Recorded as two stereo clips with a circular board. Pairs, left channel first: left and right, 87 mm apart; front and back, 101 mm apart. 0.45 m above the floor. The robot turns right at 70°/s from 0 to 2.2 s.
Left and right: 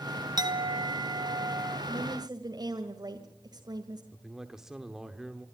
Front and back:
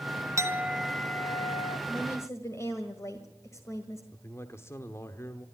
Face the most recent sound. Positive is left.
turn(degrees=-10)